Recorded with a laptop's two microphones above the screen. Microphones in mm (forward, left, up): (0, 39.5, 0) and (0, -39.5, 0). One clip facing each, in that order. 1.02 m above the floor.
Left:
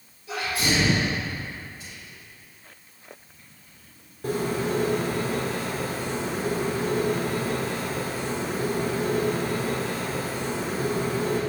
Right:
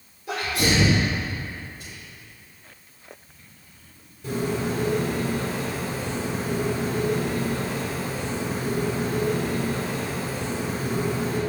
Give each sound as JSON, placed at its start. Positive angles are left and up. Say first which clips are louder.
{"t": 0.3, "sound": "a sneeze", "louder": "right 2 dB", "side_deg": -70, "distance_m": 1.9}
{"t": 1.8, "sound": "whispering", "louder": "right 1 dB", "side_deg": -60, "distance_m": 1.8}
{"t": 4.2, "sound": "a bird", "louder": "even", "side_deg": 55, "distance_m": 2.0}